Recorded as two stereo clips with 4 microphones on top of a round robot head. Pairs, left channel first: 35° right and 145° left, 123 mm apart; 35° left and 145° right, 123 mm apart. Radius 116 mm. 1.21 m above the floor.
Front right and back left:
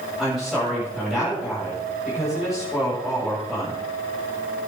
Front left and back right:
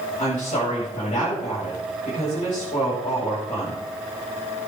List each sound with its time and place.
0.2 s a woman speaking: 55° left, 8.5 m